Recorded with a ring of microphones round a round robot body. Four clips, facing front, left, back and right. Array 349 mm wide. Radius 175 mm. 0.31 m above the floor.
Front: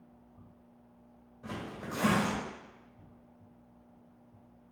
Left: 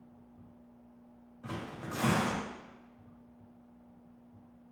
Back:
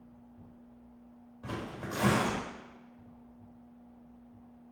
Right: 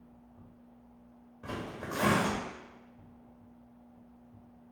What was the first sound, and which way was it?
Tearing paper, 105° right.